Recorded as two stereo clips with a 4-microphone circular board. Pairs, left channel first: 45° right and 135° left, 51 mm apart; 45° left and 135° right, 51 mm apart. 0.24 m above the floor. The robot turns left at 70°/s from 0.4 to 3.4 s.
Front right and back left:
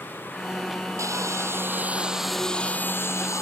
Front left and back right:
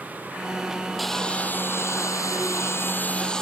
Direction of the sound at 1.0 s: 135° left.